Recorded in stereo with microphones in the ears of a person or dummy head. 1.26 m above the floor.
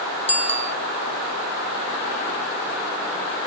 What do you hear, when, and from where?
0.3 s a bicycle bell: 30° left (ahead or behind)